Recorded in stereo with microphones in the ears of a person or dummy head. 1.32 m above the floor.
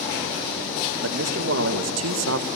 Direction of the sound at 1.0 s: 65° right (ahead or behind).